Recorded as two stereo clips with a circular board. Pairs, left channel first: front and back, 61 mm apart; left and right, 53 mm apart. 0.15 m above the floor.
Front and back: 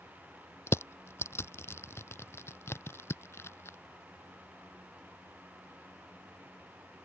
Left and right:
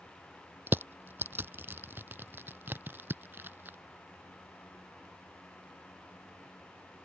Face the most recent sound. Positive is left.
turn(degrees=-45)